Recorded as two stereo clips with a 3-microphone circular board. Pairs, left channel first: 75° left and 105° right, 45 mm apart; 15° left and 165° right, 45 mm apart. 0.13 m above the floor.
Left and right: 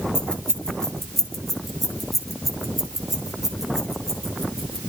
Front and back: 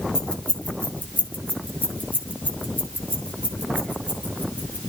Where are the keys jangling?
55° left, 1.0 m; by 4.8 s 25° right, 3 m.